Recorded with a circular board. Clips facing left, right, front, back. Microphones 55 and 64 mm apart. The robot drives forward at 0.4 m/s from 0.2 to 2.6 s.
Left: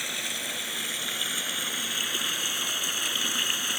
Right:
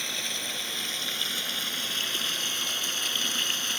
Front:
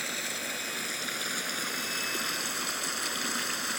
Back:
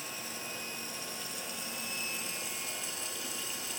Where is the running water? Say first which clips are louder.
Left 1 dB, front 7 dB; 10° left; by 3.8 s 15° left.